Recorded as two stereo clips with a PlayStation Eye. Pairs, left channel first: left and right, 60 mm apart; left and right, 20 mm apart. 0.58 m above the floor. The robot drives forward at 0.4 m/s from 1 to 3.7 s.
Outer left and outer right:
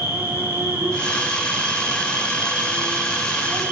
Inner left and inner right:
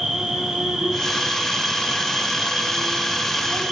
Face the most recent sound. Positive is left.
turn(degrees=-40)  # may be behind; listen again after turning